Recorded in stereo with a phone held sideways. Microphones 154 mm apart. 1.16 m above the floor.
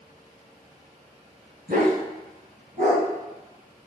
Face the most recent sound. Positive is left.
turn(degrees=-55)  # may be behind; listen again after turning